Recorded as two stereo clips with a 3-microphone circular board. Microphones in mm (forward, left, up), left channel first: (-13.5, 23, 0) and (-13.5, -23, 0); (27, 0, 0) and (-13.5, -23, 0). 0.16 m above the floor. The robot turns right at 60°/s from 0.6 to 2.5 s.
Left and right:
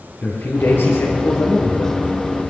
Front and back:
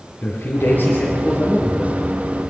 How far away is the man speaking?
About 4 m.